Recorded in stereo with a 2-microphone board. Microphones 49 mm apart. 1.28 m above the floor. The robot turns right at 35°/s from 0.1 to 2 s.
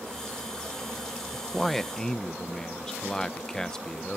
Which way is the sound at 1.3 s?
10° right (ahead or behind).